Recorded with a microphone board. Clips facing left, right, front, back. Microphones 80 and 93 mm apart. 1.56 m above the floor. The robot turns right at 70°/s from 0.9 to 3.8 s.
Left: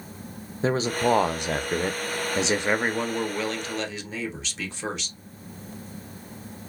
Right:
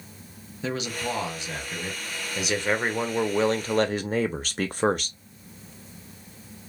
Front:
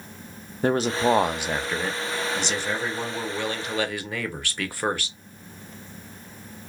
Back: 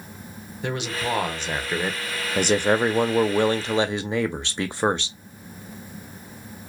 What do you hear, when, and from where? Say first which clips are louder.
0.6 s a man speaking: left 7 dB, front 7 dB; 40° left, 0.5 m; by 5.2 s 115° right, 0.5 m